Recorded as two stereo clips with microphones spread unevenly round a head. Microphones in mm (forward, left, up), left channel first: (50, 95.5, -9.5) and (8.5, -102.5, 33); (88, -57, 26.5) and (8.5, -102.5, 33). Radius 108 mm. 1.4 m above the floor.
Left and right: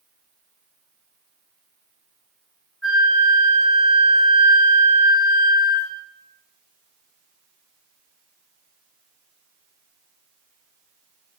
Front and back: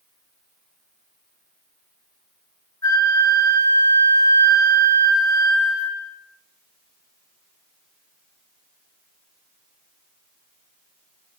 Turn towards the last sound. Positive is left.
turn(degrees=-20)